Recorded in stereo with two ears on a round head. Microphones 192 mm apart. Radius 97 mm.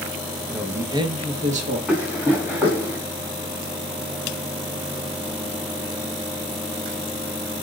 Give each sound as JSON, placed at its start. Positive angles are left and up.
{"t": 0.5, "sound": "a man speaking", "side_deg": 0, "distance_m": 0.9}
{"t": 1.9, "sound": "running footsteps", "side_deg": -5, "distance_m": 5.0}